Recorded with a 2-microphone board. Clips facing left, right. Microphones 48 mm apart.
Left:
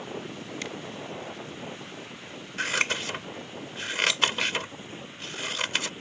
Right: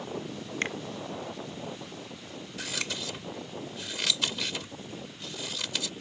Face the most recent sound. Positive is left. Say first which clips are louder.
# left 9 dB
turn(degrees=50)  # may be behind; listen again after turning